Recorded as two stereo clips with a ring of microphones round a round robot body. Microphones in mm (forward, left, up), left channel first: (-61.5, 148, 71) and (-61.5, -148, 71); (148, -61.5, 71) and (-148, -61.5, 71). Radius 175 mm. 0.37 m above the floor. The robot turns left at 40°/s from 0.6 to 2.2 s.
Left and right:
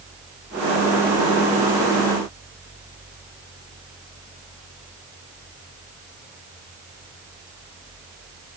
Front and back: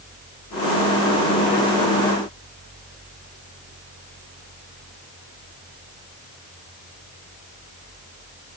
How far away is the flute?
I don't hear a flute.